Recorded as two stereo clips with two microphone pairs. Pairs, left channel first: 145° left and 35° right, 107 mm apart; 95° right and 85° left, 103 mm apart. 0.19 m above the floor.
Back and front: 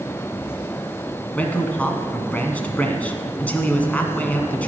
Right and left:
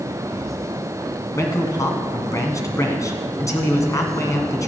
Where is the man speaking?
140° right, 1.8 m.